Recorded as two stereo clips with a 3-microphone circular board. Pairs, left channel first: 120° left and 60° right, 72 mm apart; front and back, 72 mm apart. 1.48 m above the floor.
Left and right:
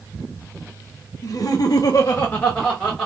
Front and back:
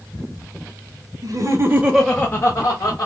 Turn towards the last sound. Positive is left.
turn(degrees=30)